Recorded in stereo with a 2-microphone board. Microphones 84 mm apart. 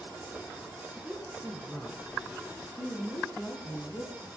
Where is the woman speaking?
5° right (ahead or behind), 2.5 m; by 4.3 s 45° left (ahead or behind), 3.5 m.